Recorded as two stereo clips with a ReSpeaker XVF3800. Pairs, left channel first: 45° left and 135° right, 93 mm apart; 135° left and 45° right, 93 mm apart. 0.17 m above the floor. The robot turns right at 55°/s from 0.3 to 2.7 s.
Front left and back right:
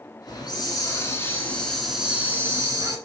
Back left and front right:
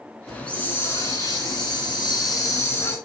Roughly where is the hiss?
Ahead left.